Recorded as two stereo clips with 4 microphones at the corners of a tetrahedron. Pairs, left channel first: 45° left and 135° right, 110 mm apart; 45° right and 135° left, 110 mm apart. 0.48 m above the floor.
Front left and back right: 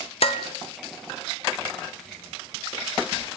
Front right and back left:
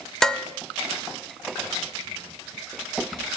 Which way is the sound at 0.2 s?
40° left.